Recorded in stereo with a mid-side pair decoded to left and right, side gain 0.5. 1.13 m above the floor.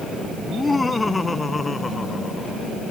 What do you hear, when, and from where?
0.4 s laughter: 20° left; by 2.6 s 25° left